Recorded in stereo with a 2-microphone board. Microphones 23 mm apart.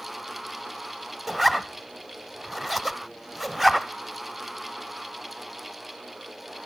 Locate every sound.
1.3 s a zipper: 15° right (ahead or behind), 0.8 m